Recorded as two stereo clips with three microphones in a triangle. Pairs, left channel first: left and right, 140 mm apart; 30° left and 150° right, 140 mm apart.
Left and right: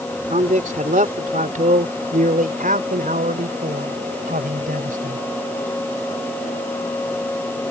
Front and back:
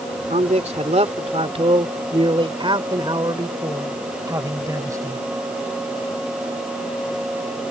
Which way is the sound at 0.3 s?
115° right.